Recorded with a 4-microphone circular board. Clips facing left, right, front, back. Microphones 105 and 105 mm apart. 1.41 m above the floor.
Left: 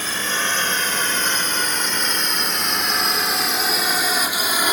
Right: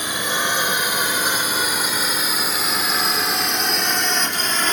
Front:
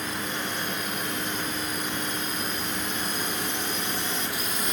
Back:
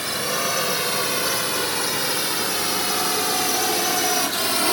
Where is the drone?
165° right; by 4.7 s 170° left.